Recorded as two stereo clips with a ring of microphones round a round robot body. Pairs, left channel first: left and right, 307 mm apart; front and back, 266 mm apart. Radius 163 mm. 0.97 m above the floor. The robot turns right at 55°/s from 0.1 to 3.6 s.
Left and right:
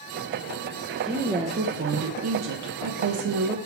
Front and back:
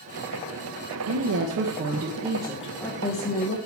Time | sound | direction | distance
1.1 | a woman speaking | straight behind | 0.8 m